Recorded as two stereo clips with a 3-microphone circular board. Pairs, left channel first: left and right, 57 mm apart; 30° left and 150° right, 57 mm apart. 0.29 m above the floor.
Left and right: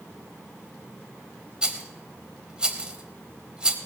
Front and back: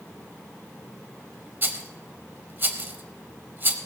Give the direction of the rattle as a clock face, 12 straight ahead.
5 o'clock.